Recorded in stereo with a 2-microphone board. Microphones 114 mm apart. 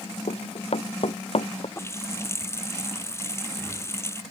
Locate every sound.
0.3 s running footsteps: 65° left (ahead or behind); by 1.7 s 55° left (ahead or behind)
1.8 s a running tap: 25° left (ahead or behind)